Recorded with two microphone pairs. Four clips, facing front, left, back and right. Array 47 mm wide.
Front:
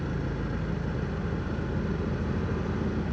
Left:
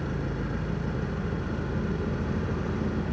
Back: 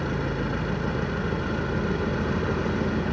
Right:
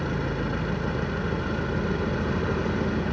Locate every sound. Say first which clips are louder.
0.0 s an engine running: right 4 dB, back 5 dB; 145° right, 1.4 m